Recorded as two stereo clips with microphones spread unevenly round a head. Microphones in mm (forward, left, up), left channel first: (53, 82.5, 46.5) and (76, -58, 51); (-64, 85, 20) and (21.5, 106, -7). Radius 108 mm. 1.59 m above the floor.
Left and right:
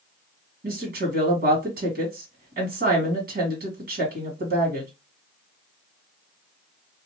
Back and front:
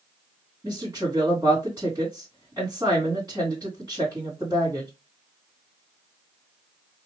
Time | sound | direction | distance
0.6 | a woman speaking | 70° right | 2 m